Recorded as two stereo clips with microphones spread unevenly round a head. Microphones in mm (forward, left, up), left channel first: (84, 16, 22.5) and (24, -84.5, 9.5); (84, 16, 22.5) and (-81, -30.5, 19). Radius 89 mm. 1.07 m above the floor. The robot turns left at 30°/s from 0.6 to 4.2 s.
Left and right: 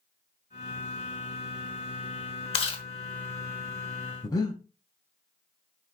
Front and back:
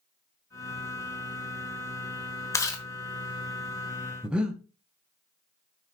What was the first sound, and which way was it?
Chewing, 85° left.